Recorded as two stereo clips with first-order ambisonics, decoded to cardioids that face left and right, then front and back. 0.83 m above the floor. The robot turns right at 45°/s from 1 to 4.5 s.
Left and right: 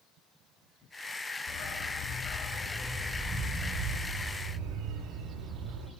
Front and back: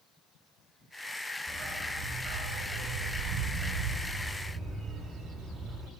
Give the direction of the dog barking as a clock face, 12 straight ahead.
8 o'clock.